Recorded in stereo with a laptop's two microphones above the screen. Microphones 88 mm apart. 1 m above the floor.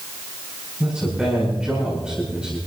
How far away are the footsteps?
No footsteps in this recording.